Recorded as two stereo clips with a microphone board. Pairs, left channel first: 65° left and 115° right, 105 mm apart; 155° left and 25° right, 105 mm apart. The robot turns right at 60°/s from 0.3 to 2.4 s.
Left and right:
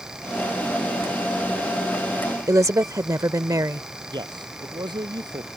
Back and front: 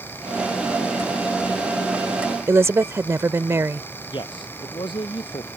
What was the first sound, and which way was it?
A woman speaking, 75° right.